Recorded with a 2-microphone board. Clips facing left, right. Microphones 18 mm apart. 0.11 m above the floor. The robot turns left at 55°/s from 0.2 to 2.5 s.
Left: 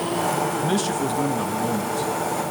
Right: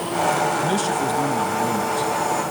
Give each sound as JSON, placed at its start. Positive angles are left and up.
{"t": 0.6, "sound": "a man speaking", "side_deg": 5, "distance_m": 1.6}